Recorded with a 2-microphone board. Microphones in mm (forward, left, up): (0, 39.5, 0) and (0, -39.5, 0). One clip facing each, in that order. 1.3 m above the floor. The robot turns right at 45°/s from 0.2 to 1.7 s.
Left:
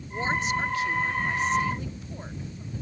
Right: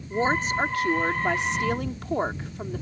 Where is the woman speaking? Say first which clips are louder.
Right 3 dB; 150° right; by 2.8 s 80° right.